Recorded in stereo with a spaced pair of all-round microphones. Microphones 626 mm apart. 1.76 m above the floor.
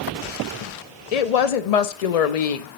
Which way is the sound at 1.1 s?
70° left (ahead or behind).